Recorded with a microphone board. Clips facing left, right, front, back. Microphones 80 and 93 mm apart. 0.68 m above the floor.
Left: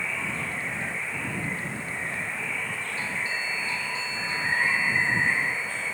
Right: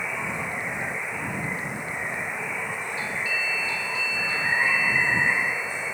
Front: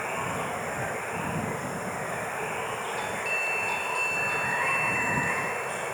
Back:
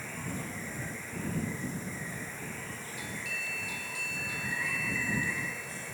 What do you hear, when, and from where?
0.0 s running water: 20° right
3.0 s a doorbell: 30° left